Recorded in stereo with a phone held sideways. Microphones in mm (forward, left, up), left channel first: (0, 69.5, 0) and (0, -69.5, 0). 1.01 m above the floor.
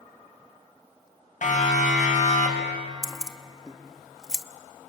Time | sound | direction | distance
1.4 | a siren | 65° left (ahead or behind) | 6.5 m
3.0 | keys jangling | 5° right (ahead or behind) | 0.8 m